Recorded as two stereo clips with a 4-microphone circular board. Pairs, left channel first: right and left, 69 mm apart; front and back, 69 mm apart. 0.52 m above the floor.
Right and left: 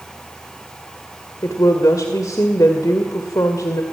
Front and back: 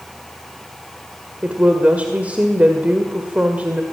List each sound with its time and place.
1.4 s a woman speaking: 115° right, 2.0 m